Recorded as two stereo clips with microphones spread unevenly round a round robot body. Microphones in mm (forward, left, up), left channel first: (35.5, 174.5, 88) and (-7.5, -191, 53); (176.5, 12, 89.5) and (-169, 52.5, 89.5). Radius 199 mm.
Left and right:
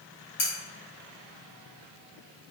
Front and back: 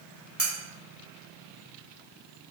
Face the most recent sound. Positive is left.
turn(degrees=85)